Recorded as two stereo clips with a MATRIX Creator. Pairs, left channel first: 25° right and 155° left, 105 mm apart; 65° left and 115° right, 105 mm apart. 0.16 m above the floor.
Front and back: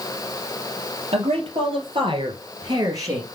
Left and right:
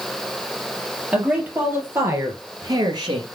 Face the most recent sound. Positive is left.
turn(degrees=-145)